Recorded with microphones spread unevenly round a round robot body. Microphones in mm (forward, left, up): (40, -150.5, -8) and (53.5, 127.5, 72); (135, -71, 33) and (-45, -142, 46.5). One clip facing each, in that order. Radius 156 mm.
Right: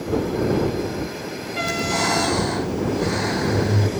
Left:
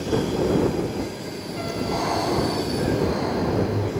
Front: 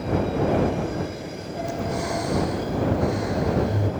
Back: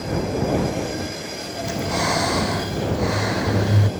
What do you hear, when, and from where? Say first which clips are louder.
1.6 s breathing: right 1 dB, back 3 dB; 155° right